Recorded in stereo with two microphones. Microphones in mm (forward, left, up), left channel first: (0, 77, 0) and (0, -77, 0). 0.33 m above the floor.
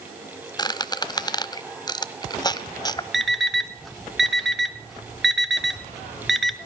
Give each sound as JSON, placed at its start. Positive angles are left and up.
{"t": 0.6, "sound": "a squeak", "side_deg": 25, "distance_m": 0.8}
{"t": 3.1, "sound": "an alarm clock", "side_deg": 0, "distance_m": 0.9}